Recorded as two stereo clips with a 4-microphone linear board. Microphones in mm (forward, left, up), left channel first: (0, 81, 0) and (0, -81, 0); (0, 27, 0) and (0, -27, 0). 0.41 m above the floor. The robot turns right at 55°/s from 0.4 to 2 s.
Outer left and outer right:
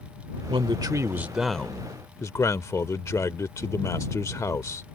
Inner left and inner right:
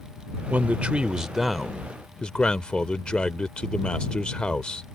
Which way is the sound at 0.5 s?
55° right.